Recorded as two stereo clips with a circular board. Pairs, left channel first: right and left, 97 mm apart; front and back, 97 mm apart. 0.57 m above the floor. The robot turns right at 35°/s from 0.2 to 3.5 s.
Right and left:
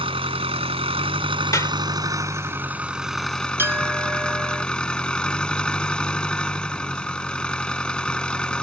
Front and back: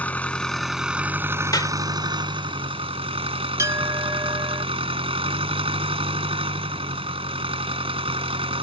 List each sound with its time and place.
0.0 s an engine running: 75° left; by 8.6 s 170° right
1.5 s a clap: 40° right; by 1.7 s 35° right
3.6 s a clink: 140° left